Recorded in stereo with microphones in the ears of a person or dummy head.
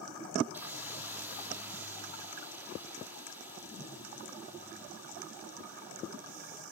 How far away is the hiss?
About 2.0 m.